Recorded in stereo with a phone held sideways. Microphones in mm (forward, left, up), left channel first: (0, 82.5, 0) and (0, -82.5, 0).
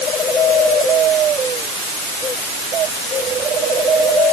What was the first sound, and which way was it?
Only background noise.